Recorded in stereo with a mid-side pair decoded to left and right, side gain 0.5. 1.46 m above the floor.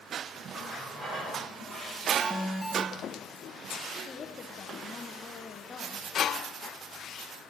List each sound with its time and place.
0.5 s a running tap: 30° right, 5.5 m
2.2 s an alarm: 5° left, 1.9 m
4.0 s a woman speaking: 35° left, 1.0 m